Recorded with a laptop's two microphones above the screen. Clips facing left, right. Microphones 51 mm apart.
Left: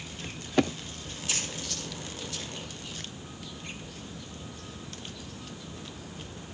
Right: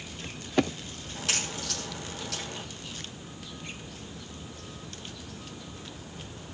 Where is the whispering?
I don't hear whispering.